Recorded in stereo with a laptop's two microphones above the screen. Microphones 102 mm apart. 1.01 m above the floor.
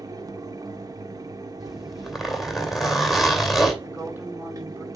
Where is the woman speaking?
20° right (ahead or behind), 6 m.